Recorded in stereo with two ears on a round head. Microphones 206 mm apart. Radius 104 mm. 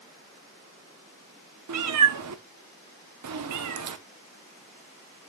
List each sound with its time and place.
1.7 s a cat meowing: 85° right, 0.8 m